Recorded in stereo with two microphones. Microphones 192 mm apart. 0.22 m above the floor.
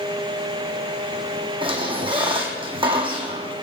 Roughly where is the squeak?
Right.